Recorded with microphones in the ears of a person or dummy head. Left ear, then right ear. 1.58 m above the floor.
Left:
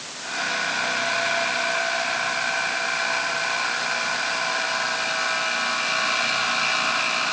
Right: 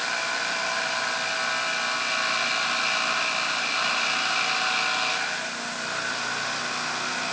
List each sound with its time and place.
Only background noise.